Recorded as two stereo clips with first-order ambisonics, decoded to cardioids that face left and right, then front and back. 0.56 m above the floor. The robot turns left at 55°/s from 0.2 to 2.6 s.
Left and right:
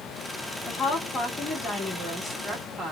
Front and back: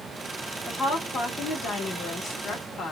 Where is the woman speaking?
95° left, 1.3 m; by 2.9 s 10° right, 1.3 m.